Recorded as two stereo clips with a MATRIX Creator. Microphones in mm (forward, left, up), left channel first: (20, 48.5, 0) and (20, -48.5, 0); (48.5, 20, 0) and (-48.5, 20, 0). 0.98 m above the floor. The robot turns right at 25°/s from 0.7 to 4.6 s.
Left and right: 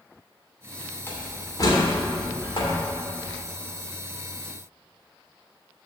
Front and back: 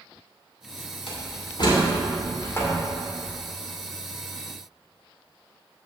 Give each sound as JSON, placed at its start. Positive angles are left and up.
{"t": 1.1, "sound": "a door slam", "azimuth_deg": 25, "distance_m": 2.5}